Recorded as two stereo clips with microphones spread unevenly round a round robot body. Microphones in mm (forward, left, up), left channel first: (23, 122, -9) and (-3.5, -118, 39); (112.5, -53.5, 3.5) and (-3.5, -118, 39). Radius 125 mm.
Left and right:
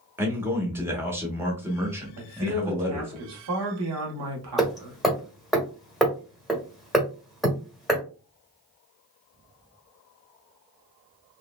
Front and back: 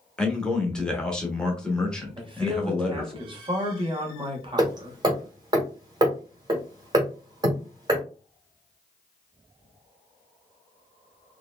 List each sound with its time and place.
0.2 s a man speaking: 5° right, 0.8 m
2.2 s a man speaking: 95° right, 1.2 m
4.6 s hammering: 150° left, 0.8 m